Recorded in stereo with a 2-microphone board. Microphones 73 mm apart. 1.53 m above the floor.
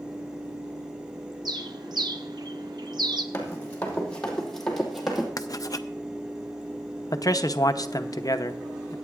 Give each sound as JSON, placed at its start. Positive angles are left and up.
{"t": 1.4, "sound": "a bird", "side_deg": -65, "distance_m": 0.7}
{"t": 3.3, "sound": "running footsteps", "side_deg": 25, "distance_m": 3.0}
{"t": 5.4, "sound": "writing", "side_deg": 50, "distance_m": 0.5}
{"t": 7.1, "sound": "a man speaking", "side_deg": 55, "distance_m": 0.6}